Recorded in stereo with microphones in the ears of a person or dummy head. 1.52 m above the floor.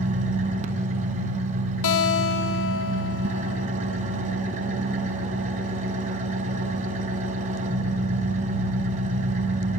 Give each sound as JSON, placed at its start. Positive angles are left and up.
{"t": 0.0, "sound": "an engine running", "side_deg": -45, "distance_m": 3.5}
{"t": 1.8, "sound": "a guitar", "side_deg": 70, "distance_m": 1.7}